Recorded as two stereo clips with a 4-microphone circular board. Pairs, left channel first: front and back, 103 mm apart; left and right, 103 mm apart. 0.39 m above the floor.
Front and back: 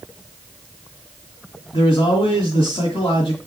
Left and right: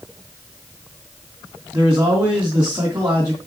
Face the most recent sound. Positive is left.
turn(degrees=-30)